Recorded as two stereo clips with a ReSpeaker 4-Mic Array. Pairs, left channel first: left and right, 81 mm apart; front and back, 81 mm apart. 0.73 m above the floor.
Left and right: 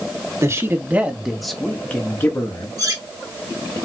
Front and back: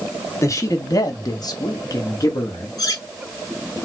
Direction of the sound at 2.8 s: 45° right.